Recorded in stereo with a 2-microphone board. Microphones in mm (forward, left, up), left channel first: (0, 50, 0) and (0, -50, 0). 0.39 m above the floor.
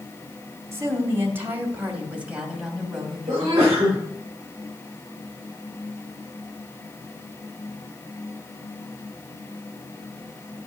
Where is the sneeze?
35° right (ahead or behind), 6.5 m.